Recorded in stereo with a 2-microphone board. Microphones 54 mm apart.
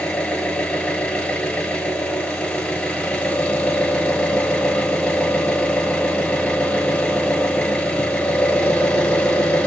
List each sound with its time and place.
0.0 s an engine running: 20° left (ahead or behind), 1.0 m